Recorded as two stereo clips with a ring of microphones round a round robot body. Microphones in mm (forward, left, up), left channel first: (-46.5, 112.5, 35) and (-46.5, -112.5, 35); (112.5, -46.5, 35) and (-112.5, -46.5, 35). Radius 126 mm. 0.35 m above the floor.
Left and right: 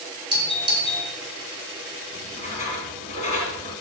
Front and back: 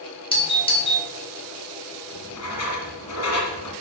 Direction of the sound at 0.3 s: 40° right.